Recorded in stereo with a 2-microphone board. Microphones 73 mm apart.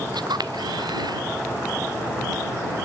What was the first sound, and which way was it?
A camera shutter, 80° right.